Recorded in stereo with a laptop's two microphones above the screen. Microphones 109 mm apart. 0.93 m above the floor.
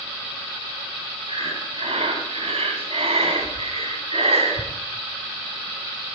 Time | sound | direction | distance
1.3 | breathing | 70° right (ahead or behind) | 2.5 m